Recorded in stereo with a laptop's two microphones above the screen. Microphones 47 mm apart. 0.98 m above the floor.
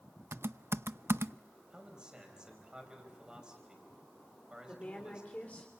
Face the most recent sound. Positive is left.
turn(degrees=30)  # may be behind; listen again after turning